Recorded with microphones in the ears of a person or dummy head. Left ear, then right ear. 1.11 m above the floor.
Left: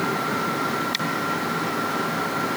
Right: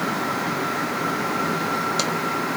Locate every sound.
Only background noise.